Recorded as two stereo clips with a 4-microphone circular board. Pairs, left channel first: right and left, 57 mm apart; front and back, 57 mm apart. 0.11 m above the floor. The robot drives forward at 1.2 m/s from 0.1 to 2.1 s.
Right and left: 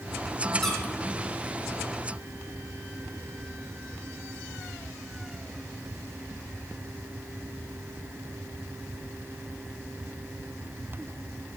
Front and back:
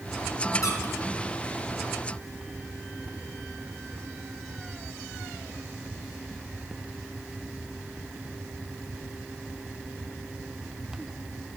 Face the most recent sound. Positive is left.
turn(degrees=-70)